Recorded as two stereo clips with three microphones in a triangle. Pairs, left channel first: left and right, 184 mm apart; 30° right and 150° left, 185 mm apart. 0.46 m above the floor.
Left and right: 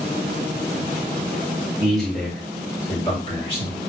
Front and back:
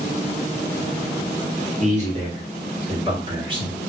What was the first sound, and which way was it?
A man speaking, straight behind.